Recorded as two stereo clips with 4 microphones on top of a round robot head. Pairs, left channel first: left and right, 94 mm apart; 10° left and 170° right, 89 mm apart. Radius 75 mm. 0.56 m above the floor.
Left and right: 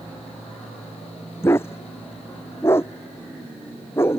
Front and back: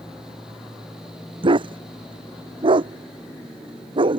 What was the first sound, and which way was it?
A dog barking, 160° left.